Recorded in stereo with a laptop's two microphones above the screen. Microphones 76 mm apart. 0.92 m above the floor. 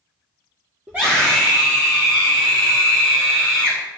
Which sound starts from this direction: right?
A scream, at 0.9 s.